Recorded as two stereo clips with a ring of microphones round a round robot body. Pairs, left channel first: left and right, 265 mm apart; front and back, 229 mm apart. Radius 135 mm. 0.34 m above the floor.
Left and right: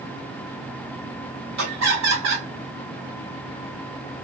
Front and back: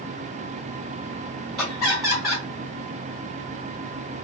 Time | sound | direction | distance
1.6 | laughter | 90° right | 1.8 m